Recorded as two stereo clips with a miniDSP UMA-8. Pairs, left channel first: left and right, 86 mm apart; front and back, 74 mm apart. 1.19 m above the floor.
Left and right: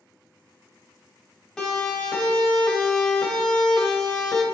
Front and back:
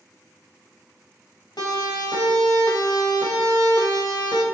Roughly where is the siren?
Ahead.